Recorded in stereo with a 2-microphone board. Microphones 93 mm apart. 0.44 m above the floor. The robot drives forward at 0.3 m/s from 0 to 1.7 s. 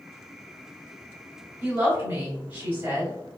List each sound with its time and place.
1.6 s a woman speaking: 20° right (ahead or behind), 1.7 m